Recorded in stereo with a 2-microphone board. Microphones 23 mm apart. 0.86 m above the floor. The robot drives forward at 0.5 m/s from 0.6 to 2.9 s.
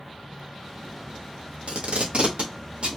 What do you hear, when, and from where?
1.7 s tape being pulled: 65° right (ahead or behind), 1.0 m; by 3.0 s 55° right (ahead or behind), 1.2 m